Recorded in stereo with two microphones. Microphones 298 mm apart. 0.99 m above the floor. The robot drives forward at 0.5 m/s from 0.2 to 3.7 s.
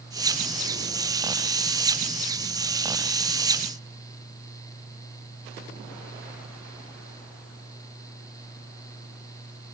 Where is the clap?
No clap in this recording.